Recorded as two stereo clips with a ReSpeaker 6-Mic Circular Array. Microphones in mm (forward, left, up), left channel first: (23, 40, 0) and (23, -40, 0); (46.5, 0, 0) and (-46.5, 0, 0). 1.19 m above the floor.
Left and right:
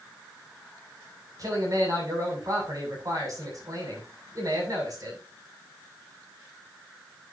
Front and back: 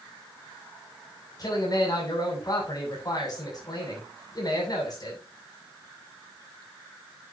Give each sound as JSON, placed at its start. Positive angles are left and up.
{"t": 1.4, "sound": "a man speaking", "azimuth_deg": -45, "distance_m": 7.5}